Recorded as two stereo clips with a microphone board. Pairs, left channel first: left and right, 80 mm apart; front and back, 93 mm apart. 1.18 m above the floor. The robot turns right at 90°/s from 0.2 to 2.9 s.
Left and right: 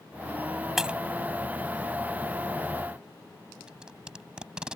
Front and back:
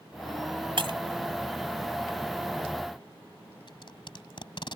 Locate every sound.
0.8 s breaking glass: 175° right; by 1.0 s 155° right
3.7 s tape being pulled: 10° right